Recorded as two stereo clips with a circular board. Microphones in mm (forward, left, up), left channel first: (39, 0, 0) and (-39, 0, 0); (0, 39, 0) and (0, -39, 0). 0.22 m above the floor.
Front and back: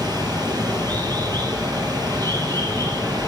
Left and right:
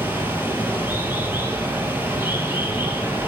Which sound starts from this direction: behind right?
Running water, at 0.0 s.